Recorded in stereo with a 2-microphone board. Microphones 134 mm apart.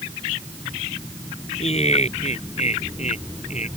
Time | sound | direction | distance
1.6 | laughter | 55° left (ahead or behind) | ?